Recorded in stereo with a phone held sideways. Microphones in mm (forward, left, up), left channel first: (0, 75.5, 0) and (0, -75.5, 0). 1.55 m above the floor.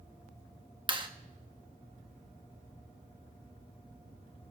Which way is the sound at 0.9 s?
30° right (ahead or behind).